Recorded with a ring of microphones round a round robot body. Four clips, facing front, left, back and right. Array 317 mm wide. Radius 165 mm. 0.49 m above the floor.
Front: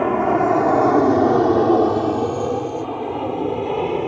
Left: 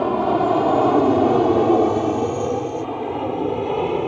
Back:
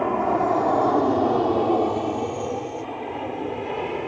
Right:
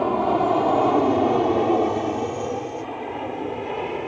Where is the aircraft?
25° left; by 4.1 s 45° left.